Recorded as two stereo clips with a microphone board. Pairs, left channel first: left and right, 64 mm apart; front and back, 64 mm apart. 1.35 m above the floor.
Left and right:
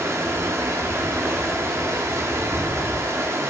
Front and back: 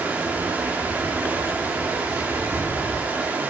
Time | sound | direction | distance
0.0 | running water | 120° right | 1.2 m